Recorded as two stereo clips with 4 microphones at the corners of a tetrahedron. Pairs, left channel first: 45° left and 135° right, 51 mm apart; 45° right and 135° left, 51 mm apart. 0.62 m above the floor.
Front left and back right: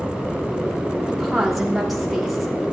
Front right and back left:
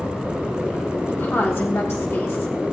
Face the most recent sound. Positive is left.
turn(degrees=-45)